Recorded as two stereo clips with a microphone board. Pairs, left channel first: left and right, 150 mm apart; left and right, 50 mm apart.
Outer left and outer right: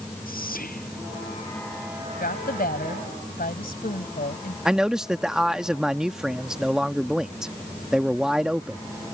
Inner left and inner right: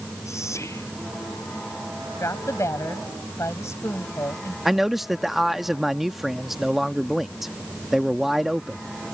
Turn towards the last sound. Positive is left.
turn(degrees=-5)  # may be behind; listen again after turning